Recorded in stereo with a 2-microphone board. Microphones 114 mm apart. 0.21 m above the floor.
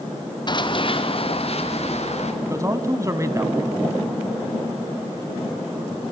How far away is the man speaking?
About 1.6 m.